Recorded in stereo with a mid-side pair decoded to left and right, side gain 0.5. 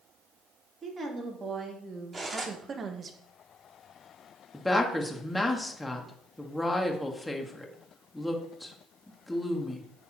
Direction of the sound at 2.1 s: 25° right.